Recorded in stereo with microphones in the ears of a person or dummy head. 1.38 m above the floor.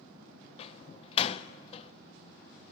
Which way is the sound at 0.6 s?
35° left (ahead or behind).